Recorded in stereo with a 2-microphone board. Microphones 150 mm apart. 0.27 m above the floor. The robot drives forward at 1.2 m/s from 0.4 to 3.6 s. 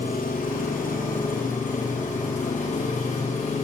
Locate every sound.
0.0 s an engine running: 70° left (ahead or behind), 8 m; by 3.6 s 50° left (ahead or behind), 10 m